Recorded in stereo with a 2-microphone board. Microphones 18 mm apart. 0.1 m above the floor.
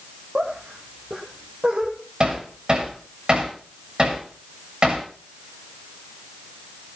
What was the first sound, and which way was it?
Laughter, 65° right (ahead or behind).